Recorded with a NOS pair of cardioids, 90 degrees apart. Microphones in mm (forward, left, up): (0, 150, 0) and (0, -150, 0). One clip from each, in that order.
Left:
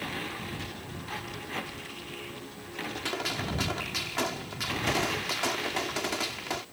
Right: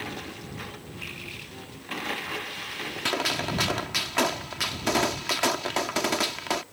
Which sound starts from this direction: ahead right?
A gunshot, at 3.0 s.